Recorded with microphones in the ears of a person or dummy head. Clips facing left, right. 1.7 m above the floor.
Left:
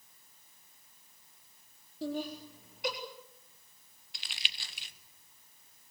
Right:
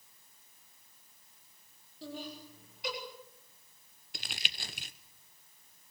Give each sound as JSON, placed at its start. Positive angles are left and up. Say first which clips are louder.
{"t": 2.0, "sound": "laughter", "louder": "left 7 dB", "side_deg": 45, "distance_m": 4.0}
{"t": 4.1, "sound": "crumpling", "louder": "right 4 dB", "side_deg": -40, "distance_m": 1.0}